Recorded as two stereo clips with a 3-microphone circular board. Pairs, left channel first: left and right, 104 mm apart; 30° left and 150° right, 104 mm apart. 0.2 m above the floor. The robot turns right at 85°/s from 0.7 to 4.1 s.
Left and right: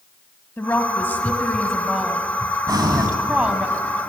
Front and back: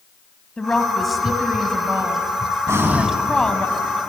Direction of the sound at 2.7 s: 105° right.